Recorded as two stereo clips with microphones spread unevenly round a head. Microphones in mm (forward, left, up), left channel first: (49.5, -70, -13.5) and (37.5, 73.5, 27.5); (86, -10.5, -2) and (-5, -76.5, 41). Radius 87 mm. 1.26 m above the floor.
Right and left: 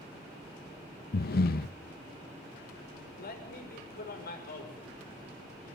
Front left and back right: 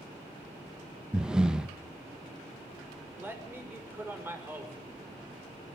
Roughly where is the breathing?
Ahead right.